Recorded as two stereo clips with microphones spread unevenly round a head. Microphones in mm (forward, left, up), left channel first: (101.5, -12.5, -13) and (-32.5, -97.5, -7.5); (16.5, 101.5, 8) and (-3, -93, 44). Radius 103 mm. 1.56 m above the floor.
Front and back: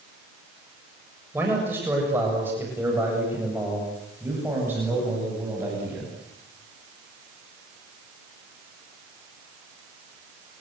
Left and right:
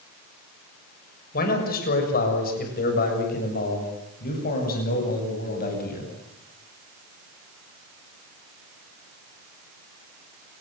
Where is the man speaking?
135° left, 6.5 m; by 6.1 s 130° left, 9.5 m.